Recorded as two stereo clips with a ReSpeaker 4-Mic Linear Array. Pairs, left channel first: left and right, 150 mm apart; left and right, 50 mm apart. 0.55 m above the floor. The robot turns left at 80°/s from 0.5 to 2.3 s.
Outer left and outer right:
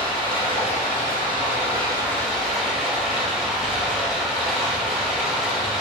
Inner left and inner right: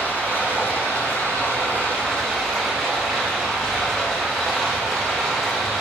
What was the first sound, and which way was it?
Running water, 140° left.